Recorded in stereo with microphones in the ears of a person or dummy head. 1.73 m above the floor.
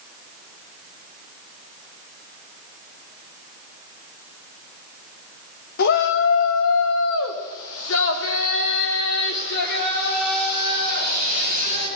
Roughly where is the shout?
Left.